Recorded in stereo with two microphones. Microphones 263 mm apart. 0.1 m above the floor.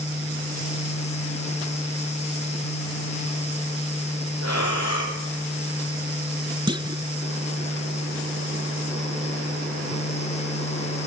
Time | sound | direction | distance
4.4 | breathing | 70° left (ahead or behind) | 7 m
6.7 | a clunk | 15° right (ahead or behind) | 1.1 m